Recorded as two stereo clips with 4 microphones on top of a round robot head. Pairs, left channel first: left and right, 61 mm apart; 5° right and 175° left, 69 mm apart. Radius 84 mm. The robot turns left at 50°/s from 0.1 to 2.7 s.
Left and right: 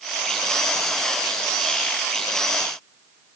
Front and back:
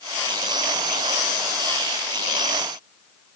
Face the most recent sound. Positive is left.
No sound to turn to.